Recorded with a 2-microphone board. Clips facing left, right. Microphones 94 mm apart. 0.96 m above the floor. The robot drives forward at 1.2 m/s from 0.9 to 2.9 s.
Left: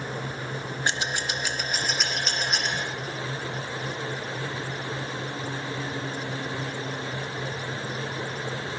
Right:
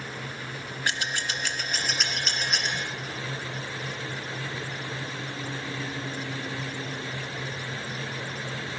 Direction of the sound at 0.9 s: 25° left (ahead or behind).